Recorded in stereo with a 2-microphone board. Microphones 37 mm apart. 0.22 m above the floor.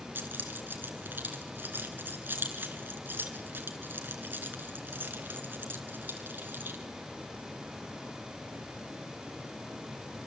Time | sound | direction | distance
0.1 | keys jangling | 65° right (ahead or behind) | 2.5 m